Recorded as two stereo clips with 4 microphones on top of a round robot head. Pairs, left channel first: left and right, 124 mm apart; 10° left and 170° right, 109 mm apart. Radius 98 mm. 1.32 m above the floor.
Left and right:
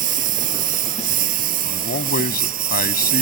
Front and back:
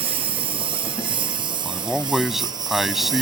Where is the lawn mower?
120° right; by 3.2 s 105° right.